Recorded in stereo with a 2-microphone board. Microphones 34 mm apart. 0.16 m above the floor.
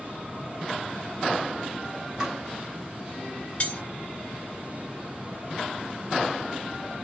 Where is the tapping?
15° right (ahead or behind), 1.5 m.